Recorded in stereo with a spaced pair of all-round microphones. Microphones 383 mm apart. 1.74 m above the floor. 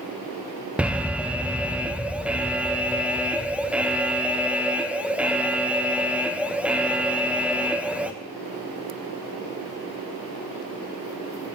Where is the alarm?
5° right (ahead or behind), 0.5 m.